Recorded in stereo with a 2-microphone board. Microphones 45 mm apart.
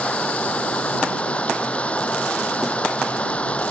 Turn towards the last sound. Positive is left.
turn(degrees=30)  # may be behind; listen again after turning